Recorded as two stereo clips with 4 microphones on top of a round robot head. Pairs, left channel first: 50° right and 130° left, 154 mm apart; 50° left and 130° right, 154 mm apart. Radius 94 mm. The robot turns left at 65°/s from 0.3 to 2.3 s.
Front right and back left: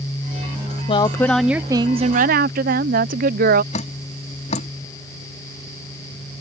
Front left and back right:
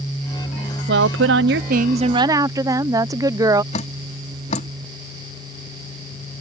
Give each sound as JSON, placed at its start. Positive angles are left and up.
{"t": 0.9, "sound": "a woman speaking", "azimuth_deg": -105}
{"t": 3.7, "sound": "dripping", "azimuth_deg": 0}